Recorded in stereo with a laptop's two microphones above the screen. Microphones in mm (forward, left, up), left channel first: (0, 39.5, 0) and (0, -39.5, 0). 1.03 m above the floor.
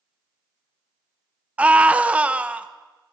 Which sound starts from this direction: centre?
A scream, at 1.6 s.